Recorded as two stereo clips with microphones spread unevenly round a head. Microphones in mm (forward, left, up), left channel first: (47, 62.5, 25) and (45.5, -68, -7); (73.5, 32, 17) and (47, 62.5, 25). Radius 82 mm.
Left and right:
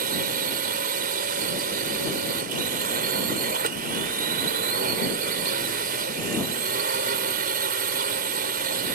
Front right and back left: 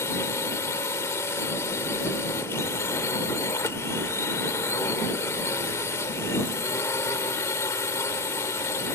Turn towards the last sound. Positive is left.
turn(degrees=-80)